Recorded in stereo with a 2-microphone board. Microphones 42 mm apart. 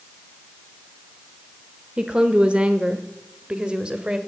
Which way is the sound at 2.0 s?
20° right (ahead or behind).